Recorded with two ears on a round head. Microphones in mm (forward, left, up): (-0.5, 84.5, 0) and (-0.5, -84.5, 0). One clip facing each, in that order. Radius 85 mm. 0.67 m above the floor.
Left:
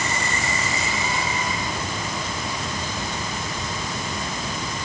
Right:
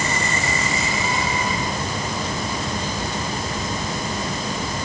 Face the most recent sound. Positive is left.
No sound to turn to.